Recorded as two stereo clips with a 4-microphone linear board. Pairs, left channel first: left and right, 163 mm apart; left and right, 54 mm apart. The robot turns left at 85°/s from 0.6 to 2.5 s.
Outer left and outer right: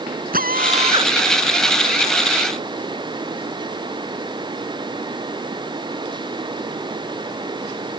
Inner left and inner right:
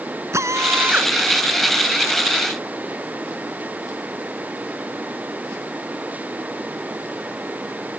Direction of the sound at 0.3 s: 120° right.